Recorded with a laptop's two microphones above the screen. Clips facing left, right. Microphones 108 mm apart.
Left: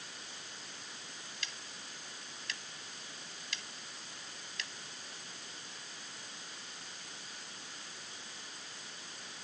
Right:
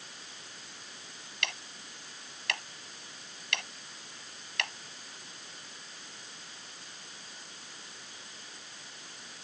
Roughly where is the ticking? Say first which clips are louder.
Right 12 dB; right.